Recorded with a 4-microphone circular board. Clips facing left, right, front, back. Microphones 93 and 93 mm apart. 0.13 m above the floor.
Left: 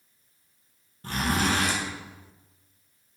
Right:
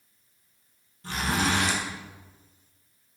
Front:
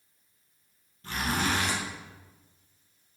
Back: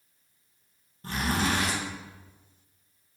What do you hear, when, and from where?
1.0 s a zipper: 130° left, 3 m